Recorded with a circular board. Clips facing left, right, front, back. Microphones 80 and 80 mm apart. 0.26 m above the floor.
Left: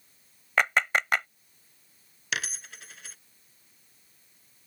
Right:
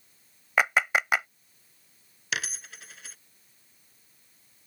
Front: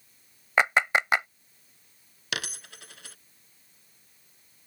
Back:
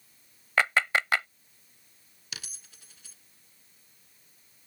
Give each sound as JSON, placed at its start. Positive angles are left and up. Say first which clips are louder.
{"t": 0.6, "sound": "a clap", "louder": "right 1 dB, front 2 dB", "azimuth_deg": -20}
{"t": 2.3, "sound": "a dropped coin", "louder": "even, front 13 dB", "azimuth_deg": 0}